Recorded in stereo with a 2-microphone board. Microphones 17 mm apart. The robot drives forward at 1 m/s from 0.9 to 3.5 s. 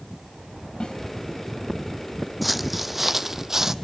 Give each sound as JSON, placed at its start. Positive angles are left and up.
{"t": 0.8, "sound": "a snare drum", "side_deg": 60, "distance_m": 3.0}
{"t": 2.4, "sound": "footsteps", "side_deg": -5, "distance_m": 0.8}